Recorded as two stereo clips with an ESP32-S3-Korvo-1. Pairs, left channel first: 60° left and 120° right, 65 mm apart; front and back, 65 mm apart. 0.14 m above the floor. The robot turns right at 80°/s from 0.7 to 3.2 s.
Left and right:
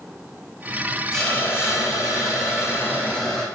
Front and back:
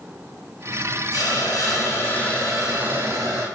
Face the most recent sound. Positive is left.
turn(degrees=145)